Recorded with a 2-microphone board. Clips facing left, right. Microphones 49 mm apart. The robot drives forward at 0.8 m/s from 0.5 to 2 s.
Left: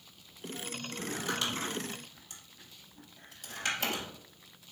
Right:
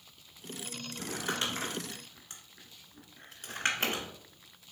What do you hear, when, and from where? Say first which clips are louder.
1.0 s crumpling: even; 30° right (ahead or behind), 1.9 m; by 4.1 s 45° right (ahead or behind), 1.3 m